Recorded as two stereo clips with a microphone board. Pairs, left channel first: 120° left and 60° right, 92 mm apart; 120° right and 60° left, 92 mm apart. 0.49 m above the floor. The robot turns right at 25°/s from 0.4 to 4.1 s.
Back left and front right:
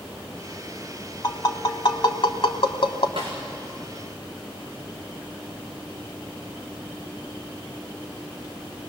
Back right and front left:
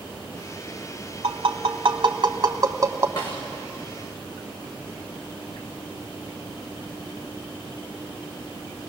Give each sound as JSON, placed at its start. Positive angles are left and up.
{"t": 1.2, "sound": "tapping", "azimuth_deg": 70, "distance_m": 1.2}
{"t": 3.2, "sound": "a snare drum", "azimuth_deg": -80, "distance_m": 6.5}